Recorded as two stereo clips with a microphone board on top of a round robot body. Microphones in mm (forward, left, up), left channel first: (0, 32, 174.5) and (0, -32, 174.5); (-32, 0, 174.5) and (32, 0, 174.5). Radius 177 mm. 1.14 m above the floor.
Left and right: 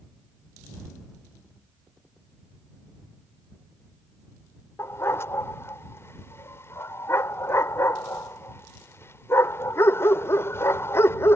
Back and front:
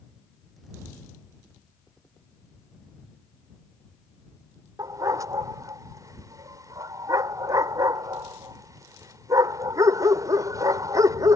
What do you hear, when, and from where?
4.8 s a dog barking: 35° left